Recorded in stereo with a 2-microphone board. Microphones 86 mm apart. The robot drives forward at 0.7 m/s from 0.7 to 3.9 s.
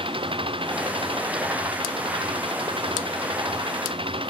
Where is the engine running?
85° right; by 4.3 s 90° right.